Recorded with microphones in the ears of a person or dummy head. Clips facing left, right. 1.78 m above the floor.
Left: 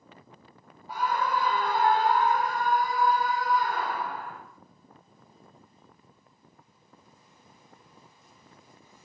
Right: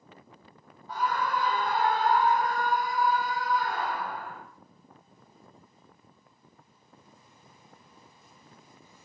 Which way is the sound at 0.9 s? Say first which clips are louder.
Left 1 dB; 15° left (ahead or behind).